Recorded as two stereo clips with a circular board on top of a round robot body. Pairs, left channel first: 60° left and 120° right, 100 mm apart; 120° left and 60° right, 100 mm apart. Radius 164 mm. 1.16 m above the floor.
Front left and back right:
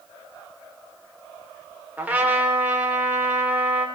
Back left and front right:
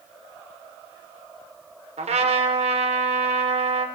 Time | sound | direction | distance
2.0 | a trumpet | 45° right | 3 m